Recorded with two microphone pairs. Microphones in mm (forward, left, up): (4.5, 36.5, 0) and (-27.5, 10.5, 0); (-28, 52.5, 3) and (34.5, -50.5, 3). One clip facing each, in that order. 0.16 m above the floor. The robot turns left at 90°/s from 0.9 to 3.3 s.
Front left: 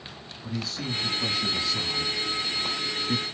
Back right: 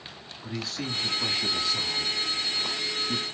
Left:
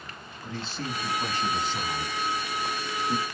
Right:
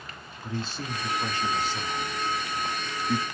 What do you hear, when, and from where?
0.4 s a man speaking: 130° right, 1.1 m; by 3.2 s 20° left, 1.1 m